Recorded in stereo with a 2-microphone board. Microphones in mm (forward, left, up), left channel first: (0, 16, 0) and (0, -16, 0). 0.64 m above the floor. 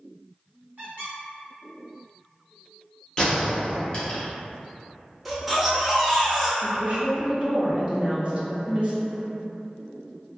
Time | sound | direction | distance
0.8 | a squeak | 55° right (ahead or behind) | 1.6 m
3.2 | a gunshot | 25° left (ahead or behind) | 0.9 m
5.2 | a baby crying | 5° right (ahead or behind) | 0.6 m
6.6 | a woman speaking | 35° right (ahead or behind) | 0.7 m